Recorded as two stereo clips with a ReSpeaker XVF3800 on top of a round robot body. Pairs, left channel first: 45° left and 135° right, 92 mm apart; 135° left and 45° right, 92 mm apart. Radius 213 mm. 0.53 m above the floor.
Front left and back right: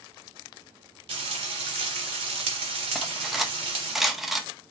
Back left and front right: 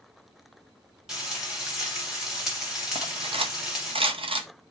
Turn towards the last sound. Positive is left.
turn(degrees=-50)